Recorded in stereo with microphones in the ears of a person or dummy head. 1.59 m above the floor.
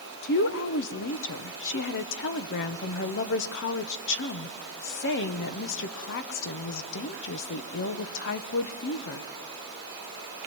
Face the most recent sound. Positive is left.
turn(degrees=60)  # may be behind; listen again after turning